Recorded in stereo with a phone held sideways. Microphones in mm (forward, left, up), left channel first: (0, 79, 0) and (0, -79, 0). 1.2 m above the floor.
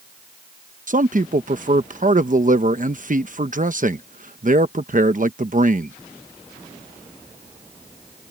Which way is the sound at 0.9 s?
55° right (ahead or behind).